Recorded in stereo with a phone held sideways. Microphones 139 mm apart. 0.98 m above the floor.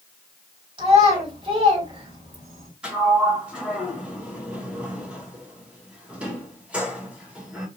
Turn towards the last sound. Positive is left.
turn(degrees=-5)  # may be behind; listen again after turning